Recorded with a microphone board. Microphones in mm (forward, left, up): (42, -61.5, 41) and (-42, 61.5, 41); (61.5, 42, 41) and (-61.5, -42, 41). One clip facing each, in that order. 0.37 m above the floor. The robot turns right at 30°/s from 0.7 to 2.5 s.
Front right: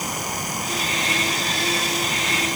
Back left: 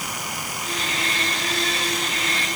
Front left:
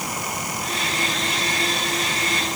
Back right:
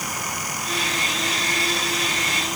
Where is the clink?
I don't hear a clink.